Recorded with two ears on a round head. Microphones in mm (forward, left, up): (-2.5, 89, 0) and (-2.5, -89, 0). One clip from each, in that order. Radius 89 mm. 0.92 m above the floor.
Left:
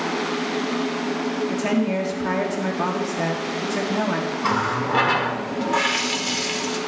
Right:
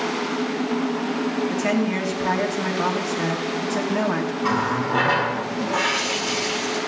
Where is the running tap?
20° left (ahead or behind), 1.7 m.